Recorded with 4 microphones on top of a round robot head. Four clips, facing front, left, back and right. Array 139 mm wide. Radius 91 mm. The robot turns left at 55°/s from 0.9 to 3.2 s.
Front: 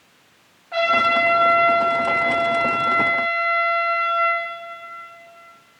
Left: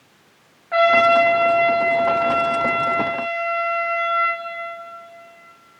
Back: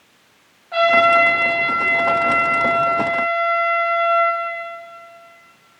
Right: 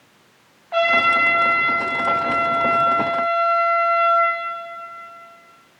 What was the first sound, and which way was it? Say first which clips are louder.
A trumpet: left 4 dB, back 5 dB; 100° left.